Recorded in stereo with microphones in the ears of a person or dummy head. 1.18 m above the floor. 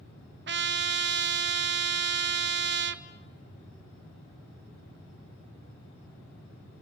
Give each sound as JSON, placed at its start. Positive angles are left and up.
{"t": 0.5, "sound": "a trumpet", "side_deg": -55, "distance_m": 0.8}